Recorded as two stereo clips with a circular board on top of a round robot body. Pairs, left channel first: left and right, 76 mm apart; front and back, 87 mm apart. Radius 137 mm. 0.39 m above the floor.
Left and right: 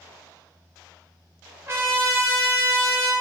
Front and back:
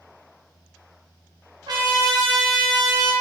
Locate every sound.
1.7 s a trumpet: 145° right, 0.8 m